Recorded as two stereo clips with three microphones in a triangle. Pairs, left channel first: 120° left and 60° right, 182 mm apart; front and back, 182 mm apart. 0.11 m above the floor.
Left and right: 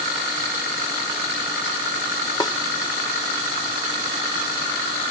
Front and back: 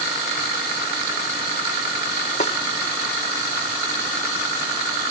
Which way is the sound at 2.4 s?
50° left.